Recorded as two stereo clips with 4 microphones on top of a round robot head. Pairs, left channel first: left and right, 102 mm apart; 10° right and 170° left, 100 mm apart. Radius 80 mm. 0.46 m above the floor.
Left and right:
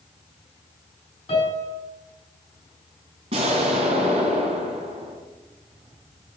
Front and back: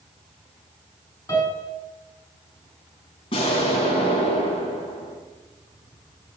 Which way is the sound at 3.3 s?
50° right.